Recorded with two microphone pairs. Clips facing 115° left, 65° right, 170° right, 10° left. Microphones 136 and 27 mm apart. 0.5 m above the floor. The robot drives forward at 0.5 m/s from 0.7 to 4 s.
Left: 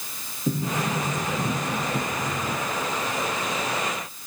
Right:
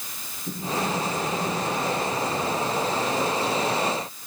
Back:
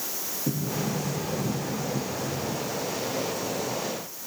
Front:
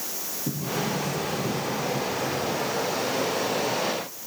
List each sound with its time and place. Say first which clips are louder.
0.5 s a sliding door: left 1 dB, front 1 dB; 100° left, 4.5 m; by 2.7 s 115° left, 5 m